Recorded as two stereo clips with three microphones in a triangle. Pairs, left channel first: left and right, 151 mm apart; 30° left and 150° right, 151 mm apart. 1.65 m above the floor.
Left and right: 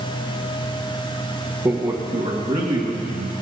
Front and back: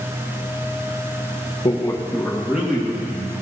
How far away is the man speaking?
About 1.1 m.